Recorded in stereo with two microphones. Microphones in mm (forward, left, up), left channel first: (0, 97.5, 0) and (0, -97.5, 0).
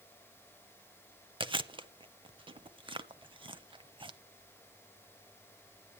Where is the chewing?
25° right (ahead or behind), 0.6 m.